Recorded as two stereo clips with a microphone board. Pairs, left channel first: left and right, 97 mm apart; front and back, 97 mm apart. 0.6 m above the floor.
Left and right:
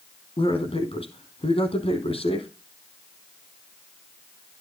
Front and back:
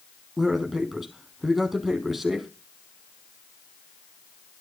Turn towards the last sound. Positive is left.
turn(degrees=90)